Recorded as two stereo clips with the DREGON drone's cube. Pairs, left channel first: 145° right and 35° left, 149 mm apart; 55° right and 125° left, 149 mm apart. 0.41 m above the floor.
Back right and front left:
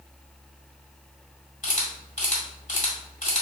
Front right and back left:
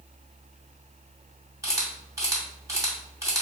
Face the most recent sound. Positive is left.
turn(degrees=-170)